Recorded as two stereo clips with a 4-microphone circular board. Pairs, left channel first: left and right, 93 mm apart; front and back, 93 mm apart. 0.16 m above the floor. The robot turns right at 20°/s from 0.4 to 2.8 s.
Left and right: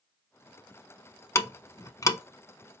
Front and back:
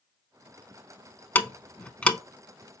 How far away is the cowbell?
No cowbell in this recording.